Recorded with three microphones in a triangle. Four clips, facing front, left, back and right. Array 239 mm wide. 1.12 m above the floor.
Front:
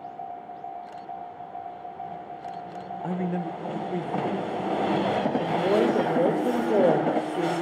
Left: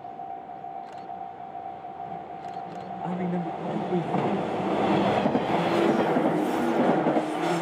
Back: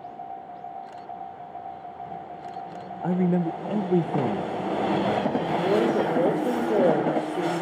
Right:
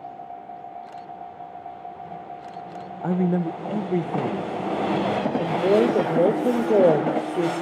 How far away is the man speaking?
About 0.8 m.